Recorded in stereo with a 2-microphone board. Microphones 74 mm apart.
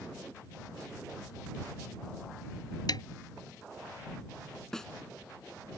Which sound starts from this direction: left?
A snare drum, at 2.9 s.